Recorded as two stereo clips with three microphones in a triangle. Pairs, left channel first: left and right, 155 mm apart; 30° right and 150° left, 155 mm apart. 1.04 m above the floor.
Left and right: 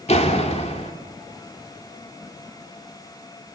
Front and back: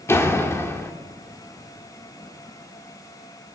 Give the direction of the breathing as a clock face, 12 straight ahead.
I don't hear breathing.